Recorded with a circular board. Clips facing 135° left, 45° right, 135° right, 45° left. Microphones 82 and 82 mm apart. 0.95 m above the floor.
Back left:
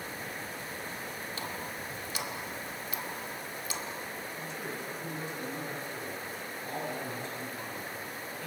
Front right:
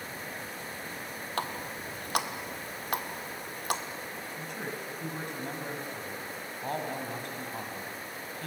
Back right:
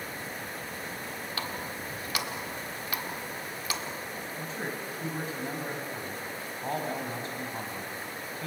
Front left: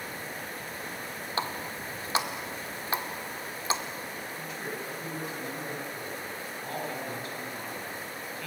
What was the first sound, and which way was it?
A running tap, 15° right.